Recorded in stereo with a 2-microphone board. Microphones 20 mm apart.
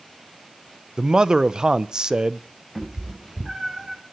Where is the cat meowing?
25° right (ahead or behind), 3.5 m.